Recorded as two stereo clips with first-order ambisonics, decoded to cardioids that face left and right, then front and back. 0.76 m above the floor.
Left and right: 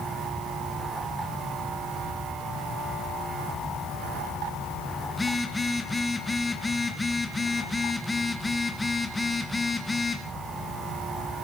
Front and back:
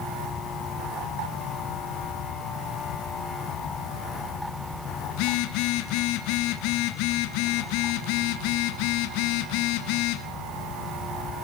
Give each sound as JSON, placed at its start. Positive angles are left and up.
{"t": 5.1, "sound": "a phone buzzing", "azimuth_deg": 10, "distance_m": 1.9}